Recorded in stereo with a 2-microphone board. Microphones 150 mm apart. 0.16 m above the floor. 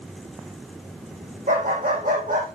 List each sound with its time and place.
1.5 s a dog barking: 75° right (ahead or behind), 3.5 m